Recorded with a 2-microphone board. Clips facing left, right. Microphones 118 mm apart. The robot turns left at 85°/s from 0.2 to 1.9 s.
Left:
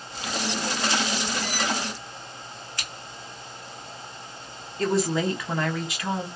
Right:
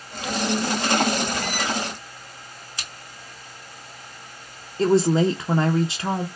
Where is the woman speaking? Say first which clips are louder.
Right 6 dB; 30° right (ahead or behind), 0.6 m.